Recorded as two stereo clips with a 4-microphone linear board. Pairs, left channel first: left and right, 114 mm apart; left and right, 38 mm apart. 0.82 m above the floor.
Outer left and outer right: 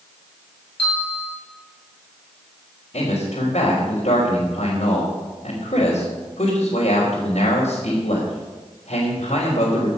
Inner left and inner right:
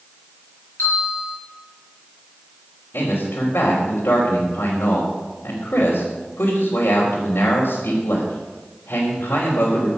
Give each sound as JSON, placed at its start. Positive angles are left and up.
{"t": 0.8, "sound": "a bell", "side_deg": 55, "distance_m": 7.5}
{"t": 2.9, "sound": "a man speaking", "side_deg": 75, "distance_m": 3.5}